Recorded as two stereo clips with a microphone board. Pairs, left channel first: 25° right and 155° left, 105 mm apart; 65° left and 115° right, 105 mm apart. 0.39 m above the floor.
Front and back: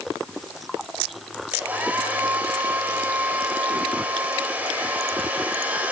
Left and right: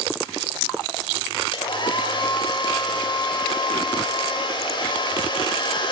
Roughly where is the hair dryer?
Left.